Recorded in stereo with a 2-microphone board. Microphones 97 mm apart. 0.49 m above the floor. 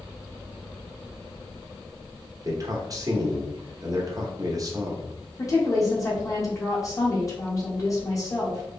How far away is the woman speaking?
About 1.5 m.